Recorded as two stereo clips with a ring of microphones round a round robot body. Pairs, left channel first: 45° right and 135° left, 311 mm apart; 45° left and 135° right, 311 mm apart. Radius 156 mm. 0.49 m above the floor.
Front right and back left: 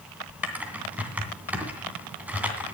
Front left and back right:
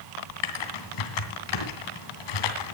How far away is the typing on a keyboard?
About 2.5 m.